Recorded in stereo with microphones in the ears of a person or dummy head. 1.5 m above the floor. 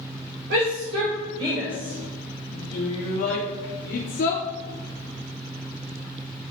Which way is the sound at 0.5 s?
55° right (ahead or behind).